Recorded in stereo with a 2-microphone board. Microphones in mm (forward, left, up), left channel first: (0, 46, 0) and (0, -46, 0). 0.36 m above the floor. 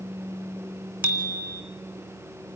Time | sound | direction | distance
1.0 | a bicycle bell | 20° right (ahead or behind) | 2.5 m